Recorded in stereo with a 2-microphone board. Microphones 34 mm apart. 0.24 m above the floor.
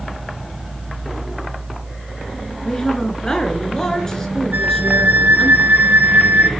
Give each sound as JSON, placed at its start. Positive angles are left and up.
{"t": 2.6, "sound": "a woman speaking", "side_deg": 20, "distance_m": 3.5}
{"t": 4.5, "sound": "a flute", "side_deg": -70, "distance_m": 0.6}